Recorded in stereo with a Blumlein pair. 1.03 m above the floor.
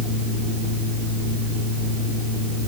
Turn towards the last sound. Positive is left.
turn(degrees=-25)